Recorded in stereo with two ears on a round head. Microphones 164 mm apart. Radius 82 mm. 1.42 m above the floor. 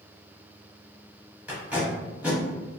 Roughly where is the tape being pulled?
Centre.